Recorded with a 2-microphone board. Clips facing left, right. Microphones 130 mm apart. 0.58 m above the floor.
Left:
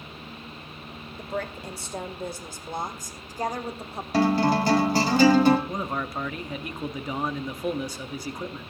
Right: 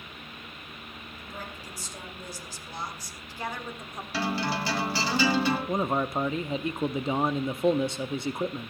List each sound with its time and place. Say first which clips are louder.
1.2 s a woman speaking: left 11 dB; 65° left (ahead or behind), 2 m; by 4.0 s 25° left (ahead or behind), 1.3 m
4.1 s a guitar: left 9 dB; 45° left (ahead or behind), 2 m
5.7 s a man speaking: right 3 dB; 25° right (ahead or behind), 0.6 m